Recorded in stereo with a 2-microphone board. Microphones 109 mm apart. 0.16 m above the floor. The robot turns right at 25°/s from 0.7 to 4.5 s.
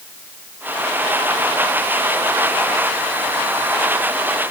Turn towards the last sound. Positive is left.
No sound to turn to.